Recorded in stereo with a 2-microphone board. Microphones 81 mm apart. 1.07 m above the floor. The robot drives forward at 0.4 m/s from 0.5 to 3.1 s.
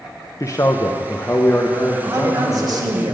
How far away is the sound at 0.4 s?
About 0.5 m.